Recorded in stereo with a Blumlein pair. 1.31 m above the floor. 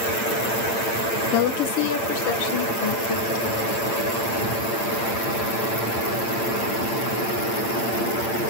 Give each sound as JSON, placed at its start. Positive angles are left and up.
{"t": 1.3, "sound": "a woman speaking", "azimuth_deg": 45, "distance_m": 0.8}